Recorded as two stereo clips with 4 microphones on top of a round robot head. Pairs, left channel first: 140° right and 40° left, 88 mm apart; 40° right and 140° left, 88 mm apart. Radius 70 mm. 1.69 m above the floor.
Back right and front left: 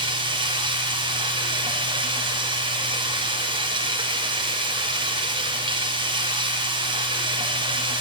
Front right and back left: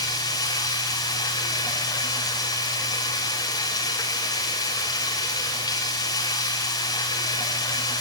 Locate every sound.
0.0 s running water: 5° left, 6 m